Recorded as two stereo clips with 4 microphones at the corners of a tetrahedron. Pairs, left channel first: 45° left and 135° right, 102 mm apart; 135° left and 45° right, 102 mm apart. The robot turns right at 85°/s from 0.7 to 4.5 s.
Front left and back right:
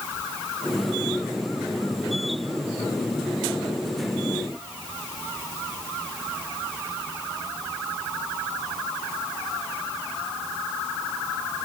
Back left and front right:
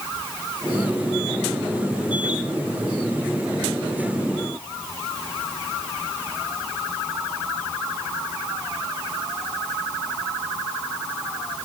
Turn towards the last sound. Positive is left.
No sound to turn to.